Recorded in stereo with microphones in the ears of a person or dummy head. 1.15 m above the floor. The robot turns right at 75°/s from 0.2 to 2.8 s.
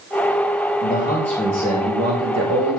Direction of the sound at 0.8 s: 140° left.